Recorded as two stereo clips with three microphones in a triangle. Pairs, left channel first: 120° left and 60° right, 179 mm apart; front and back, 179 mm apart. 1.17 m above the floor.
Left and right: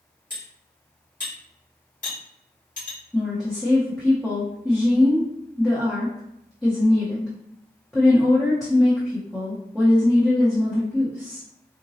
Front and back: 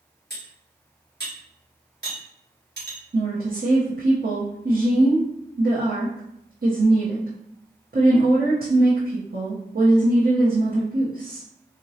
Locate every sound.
0.3 s cutlery clinking: 160° left, 1.8 m
3.1 s a woman speaking: 150° right, 0.8 m